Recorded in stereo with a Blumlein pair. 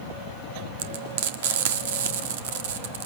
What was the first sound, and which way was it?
Frying, 55° right.